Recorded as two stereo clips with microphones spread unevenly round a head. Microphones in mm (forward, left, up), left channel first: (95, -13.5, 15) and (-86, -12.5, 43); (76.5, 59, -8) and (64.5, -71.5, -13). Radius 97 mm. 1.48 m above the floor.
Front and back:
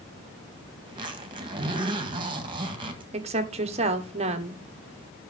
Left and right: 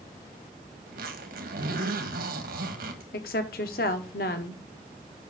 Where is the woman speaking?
120° left, 1.1 m.